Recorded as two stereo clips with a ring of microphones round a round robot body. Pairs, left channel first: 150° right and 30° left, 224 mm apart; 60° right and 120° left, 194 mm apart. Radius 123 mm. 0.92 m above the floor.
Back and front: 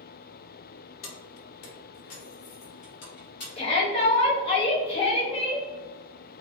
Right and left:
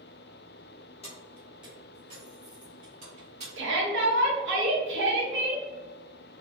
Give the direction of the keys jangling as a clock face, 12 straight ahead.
4 o'clock.